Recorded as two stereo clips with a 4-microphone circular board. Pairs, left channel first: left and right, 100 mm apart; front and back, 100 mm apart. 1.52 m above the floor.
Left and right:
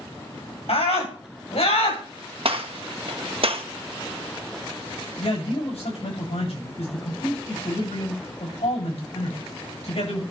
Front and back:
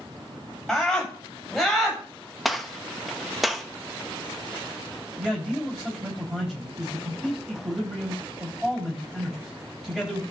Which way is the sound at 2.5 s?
90° right.